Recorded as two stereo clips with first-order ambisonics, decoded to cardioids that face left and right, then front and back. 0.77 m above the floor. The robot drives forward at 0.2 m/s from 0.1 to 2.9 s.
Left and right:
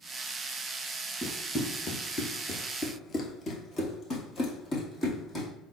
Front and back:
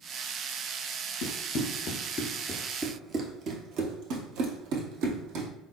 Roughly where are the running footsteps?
Ahead.